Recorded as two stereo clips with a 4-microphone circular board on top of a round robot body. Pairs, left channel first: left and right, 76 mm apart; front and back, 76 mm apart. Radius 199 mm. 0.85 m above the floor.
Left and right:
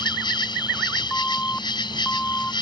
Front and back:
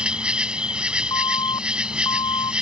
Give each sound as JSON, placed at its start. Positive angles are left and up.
{"t": 0.0, "sound": "an insect", "azimuth_deg": 105}
{"t": 1.1, "sound": "an alarm", "azimuth_deg": 15}